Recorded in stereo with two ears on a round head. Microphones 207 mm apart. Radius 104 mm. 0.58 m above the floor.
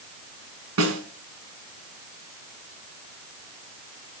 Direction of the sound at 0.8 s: 65° right (ahead or behind).